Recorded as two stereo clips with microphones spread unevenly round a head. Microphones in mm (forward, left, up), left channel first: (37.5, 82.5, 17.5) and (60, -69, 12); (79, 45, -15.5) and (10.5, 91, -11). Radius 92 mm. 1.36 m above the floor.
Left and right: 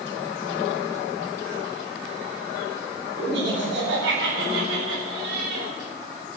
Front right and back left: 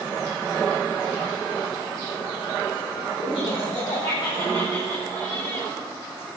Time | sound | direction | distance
3.2 | laughter | 95° right | 10 m